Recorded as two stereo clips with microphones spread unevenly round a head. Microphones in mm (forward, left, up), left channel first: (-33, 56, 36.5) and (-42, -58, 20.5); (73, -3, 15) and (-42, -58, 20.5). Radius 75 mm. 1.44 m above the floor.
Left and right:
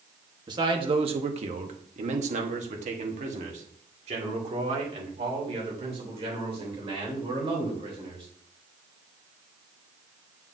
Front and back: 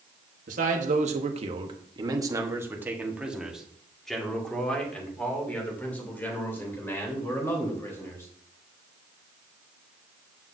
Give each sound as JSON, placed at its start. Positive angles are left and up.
{"t": 0.5, "sound": "a man speaking", "azimuth_deg": -140, "distance_m": 1.1}